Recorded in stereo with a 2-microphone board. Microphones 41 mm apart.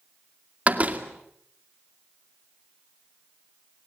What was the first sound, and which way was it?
A door slam, 35° right (ahead or behind).